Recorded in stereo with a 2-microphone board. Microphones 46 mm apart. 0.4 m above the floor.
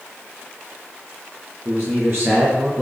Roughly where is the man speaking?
Right.